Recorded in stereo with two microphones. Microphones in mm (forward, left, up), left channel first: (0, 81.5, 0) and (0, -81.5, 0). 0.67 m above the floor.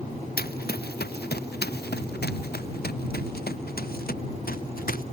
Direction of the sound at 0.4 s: 70° left (ahead or behind).